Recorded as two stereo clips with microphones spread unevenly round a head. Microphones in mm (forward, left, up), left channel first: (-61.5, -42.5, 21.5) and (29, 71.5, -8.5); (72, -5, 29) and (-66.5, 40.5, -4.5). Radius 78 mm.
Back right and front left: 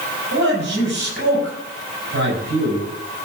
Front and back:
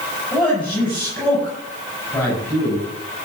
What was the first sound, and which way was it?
A man speaking, 60° left.